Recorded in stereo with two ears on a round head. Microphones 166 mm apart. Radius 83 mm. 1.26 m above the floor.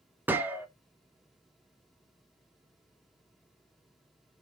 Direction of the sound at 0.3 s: 10° right (ahead or behind).